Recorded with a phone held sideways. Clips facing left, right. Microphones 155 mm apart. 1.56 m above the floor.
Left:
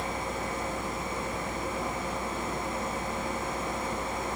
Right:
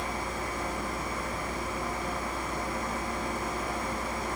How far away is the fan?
About 0.7 m.